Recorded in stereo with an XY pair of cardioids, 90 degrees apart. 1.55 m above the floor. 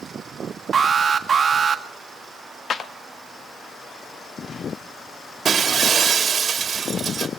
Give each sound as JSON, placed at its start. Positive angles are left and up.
{"t": 0.7, "sound": "an alarm", "azimuth_deg": -45, "distance_m": 1.5}
{"t": 2.7, "sound": "a clap", "azimuth_deg": 55, "distance_m": 1.3}
{"t": 5.5, "sound": "breaking glass", "azimuth_deg": -50, "distance_m": 2.0}